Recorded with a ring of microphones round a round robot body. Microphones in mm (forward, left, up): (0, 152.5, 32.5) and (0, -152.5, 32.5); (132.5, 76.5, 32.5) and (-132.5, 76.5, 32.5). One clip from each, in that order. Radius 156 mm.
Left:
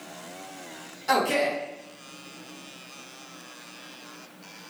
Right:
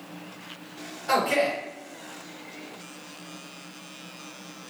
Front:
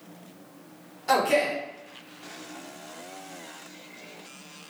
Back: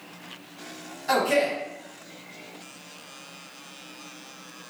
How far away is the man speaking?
About 1.3 m.